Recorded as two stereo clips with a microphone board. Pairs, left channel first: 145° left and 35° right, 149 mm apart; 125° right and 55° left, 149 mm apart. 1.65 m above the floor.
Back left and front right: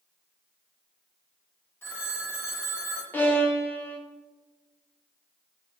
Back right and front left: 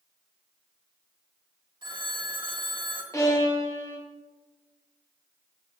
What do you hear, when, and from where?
1.8 s a phone ringing: 80° left, 1.1 m
3.1 s a violin: 160° right, 1.0 m